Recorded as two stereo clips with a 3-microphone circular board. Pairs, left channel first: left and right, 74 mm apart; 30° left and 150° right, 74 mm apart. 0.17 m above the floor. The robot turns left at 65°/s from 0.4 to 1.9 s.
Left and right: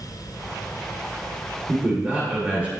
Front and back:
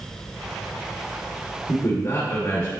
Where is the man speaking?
5° left, 2.0 m; by 2.7 s 10° right, 2.0 m.